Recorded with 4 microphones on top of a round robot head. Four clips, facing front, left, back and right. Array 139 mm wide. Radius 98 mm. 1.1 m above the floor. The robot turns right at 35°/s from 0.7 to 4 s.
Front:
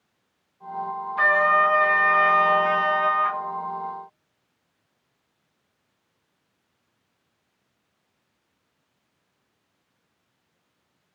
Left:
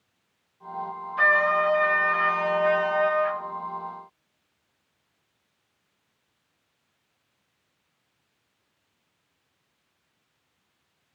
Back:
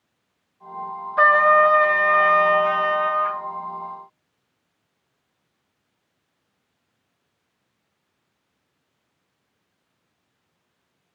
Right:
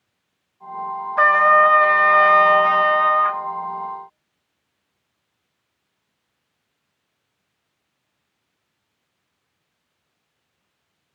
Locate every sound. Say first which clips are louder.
1.2 s a trumpet: right 8 dB, back 5 dB; 135° right, 0.7 m; by 3.4 s 55° right, 0.7 m